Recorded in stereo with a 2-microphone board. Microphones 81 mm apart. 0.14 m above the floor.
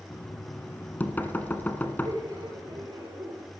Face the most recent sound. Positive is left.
turn(degrees=-55)  # may be behind; listen again after turning